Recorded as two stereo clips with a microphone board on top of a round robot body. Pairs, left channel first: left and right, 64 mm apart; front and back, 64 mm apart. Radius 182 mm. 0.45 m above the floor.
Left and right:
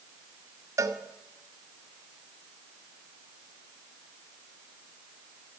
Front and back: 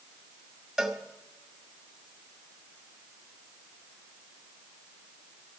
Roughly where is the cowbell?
Right.